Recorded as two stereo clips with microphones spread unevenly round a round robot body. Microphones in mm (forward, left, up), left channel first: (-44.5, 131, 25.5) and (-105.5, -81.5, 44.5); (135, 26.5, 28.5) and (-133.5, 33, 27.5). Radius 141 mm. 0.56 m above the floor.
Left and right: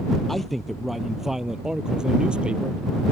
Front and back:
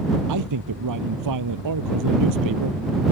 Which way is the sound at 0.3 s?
165° left.